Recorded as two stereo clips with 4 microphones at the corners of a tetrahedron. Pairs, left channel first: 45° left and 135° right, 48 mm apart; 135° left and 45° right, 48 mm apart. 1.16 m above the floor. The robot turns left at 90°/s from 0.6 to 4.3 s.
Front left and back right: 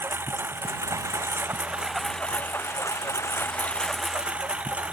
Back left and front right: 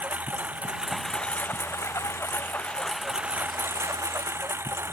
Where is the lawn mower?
100° right; by 4.9 s 70° right.